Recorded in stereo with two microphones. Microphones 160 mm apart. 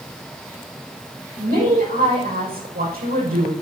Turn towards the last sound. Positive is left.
turn(degrees=-80)